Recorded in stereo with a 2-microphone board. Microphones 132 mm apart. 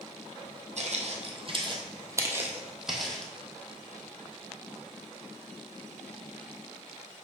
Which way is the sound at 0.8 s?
60° right (ahead or behind).